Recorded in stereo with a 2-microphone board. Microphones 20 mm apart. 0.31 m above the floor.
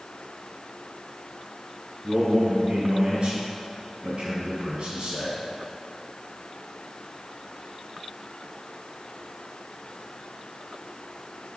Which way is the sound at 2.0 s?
55° right (ahead or behind).